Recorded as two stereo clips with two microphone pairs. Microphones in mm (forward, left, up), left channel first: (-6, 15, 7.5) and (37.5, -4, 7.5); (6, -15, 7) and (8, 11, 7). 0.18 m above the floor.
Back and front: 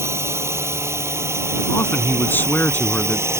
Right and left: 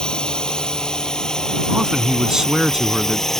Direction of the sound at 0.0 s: 35° right.